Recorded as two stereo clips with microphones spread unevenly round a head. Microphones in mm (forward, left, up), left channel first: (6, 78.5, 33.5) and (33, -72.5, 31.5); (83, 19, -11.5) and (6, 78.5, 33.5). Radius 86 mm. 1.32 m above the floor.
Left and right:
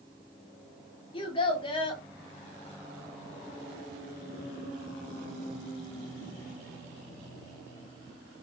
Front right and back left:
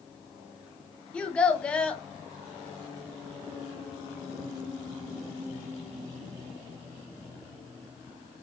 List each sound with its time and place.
1.1 s a child speaking: 85° left, 0.6 m